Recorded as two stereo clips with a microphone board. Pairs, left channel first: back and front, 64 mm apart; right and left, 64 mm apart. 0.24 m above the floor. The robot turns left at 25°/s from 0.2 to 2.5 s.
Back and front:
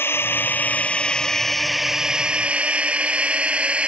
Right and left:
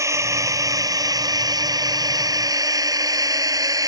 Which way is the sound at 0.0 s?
130° left.